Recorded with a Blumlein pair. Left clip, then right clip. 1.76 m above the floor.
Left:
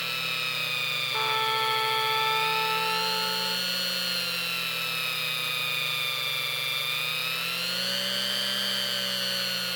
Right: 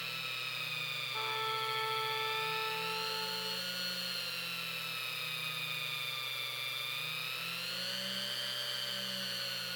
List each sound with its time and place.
0.0 s a machine running: 65° left, 1.1 m
1.1 s a trumpet: 30° left, 0.8 m